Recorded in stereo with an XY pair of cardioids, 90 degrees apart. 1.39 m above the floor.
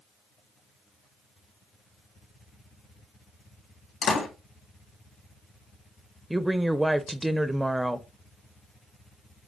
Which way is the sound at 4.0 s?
70° left.